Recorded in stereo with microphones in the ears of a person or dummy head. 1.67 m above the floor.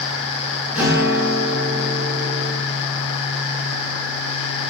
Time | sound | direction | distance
0.8 | a guitar | 10° right (ahead or behind) | 0.7 m